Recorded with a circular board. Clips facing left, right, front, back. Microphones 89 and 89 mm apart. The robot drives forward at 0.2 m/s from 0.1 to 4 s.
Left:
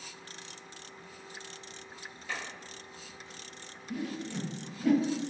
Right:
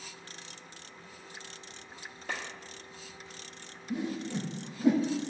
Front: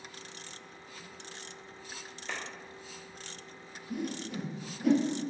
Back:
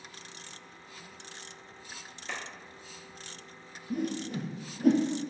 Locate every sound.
2.3 s a clap: 90° right, 1.6 m; by 2.4 s 95° right, 1.6 m
3.9 s a whoosh: 150° right, 0.7 m